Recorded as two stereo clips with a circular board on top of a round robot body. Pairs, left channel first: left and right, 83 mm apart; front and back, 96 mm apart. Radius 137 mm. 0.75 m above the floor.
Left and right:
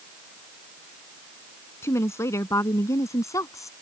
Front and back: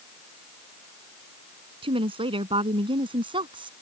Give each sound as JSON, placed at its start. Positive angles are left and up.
{"t": 1.8, "sound": "a woman speaking", "azimuth_deg": 150}